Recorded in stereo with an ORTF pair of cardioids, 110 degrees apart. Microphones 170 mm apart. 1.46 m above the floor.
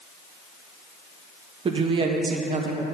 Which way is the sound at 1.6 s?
30° right.